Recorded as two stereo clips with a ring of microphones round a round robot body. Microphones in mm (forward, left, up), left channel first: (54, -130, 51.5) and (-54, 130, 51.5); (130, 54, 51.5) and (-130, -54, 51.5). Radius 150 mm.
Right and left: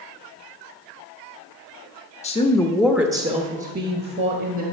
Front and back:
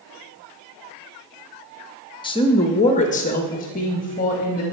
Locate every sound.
2.2 s a woman speaking: 35° right, 1.0 m; by 4.6 s 80° left, 1.6 m